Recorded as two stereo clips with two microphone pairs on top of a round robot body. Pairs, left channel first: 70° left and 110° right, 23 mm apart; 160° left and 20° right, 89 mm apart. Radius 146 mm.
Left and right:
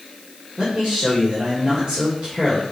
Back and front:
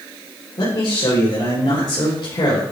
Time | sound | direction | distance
0.6 | a man speaking | 165° right | 2 m